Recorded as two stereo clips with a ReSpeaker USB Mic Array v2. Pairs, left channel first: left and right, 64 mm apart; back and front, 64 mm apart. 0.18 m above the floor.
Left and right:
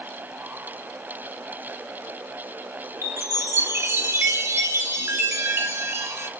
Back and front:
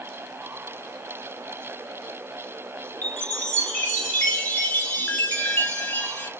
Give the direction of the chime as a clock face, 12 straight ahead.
4 o'clock.